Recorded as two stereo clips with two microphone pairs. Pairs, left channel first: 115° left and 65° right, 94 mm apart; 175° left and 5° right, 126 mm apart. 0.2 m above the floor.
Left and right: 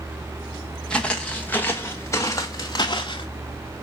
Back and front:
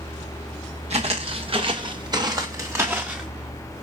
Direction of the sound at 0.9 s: 35° left.